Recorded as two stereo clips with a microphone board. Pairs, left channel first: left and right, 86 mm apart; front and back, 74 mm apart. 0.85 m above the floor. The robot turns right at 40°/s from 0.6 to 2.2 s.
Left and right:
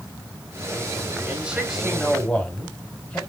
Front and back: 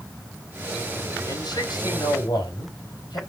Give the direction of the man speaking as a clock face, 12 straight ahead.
1 o'clock.